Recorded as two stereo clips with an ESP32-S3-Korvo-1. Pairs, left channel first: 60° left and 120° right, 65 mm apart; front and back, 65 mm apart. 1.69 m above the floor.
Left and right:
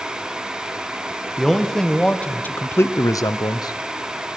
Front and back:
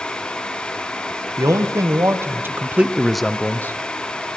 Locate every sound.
1.4 s a man speaking: 150° left, 1.8 m; by 3.8 s 55° left, 0.9 m